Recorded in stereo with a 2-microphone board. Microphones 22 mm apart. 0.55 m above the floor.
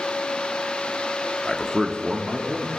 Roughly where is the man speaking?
Left.